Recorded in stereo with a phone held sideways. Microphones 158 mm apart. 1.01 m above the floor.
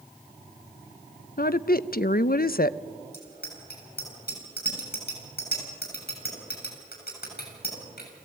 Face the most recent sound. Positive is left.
turn(degrees=85)